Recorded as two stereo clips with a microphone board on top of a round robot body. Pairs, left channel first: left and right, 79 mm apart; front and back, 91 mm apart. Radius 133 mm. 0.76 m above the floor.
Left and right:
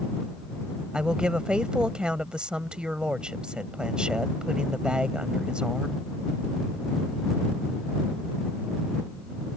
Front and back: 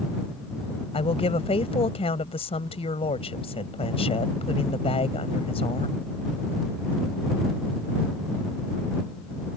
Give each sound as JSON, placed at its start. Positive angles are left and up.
{"t": 0.9, "sound": "a woman speaking", "azimuth_deg": -10}